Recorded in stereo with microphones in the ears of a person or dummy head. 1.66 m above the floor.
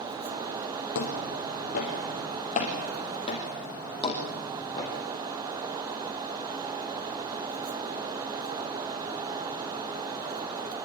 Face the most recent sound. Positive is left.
turn(degrees=15)  # may be behind; listen again after turning